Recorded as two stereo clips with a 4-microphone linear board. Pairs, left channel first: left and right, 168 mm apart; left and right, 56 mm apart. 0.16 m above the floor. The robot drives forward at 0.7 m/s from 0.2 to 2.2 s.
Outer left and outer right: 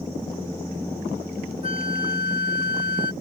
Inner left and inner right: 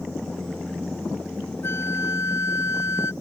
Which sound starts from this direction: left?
A flute, at 1.6 s.